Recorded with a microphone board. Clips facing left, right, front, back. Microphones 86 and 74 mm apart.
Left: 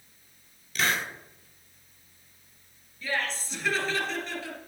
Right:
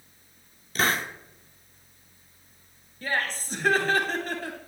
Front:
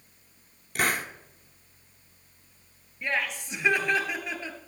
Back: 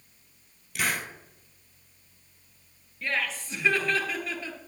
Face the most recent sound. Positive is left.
turn(degrees=-65)